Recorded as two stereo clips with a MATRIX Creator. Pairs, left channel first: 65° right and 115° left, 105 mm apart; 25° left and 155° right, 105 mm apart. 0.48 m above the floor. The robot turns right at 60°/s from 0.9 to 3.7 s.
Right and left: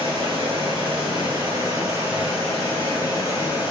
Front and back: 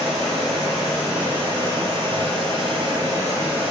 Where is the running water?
115° left, 1.5 m; by 3.7 s 75° right, 1.5 m.